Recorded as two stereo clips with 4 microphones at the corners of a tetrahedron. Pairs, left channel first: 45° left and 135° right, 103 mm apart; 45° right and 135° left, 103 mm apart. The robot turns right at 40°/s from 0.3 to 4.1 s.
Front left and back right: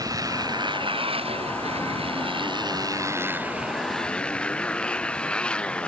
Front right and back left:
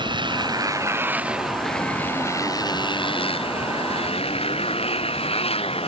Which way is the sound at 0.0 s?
175° left.